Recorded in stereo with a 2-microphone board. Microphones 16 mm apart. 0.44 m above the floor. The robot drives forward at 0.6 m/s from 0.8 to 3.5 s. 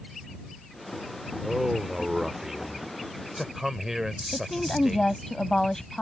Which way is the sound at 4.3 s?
30° left (ahead or behind).